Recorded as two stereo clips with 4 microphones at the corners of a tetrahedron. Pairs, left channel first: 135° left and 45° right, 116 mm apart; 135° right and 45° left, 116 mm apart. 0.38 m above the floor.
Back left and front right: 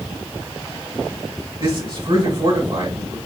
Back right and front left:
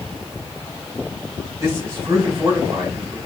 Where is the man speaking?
15° right, 2.5 m.